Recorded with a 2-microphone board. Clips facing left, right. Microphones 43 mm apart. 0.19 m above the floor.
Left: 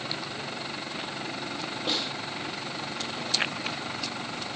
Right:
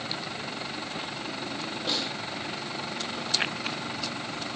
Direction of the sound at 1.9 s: 15° left (ahead or behind).